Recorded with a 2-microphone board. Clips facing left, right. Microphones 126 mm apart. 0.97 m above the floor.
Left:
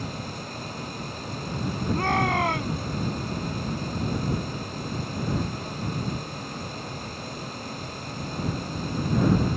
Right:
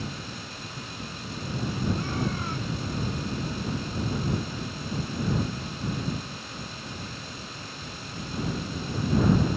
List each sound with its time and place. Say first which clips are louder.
1.9 s a shout: left 6 dB; 75° left (ahead or behind)